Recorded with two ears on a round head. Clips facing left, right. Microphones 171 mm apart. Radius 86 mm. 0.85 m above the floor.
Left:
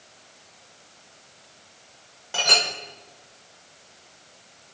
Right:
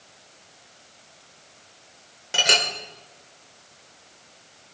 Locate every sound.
2.3 s a clink: 25° right (ahead or behind), 2.5 m